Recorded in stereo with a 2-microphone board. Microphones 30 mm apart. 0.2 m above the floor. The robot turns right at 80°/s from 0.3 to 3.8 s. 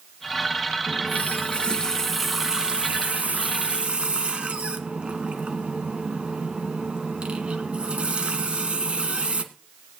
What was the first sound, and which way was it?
A running tap, 70° left.